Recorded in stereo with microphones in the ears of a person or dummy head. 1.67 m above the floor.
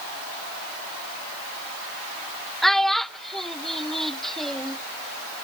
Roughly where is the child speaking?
Centre.